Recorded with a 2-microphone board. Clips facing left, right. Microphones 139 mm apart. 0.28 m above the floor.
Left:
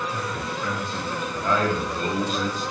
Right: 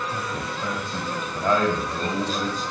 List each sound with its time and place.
0.1 s a man speaking: 40° right (ahead or behind), 1.7 m